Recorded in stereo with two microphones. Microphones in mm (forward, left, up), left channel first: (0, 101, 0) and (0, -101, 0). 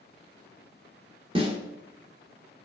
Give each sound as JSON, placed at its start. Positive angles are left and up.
{"t": 1.4, "sound": "a snare drum", "side_deg": -25, "distance_m": 0.7}